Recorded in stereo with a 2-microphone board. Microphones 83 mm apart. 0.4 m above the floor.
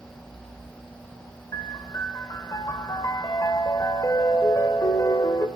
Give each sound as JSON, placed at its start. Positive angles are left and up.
{"t": 1.5, "sound": "a piano", "side_deg": 45, "distance_m": 0.7}